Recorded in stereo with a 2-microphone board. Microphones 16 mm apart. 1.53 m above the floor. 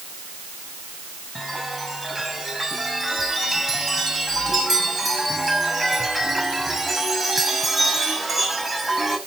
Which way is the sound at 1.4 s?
15° right (ahead or behind).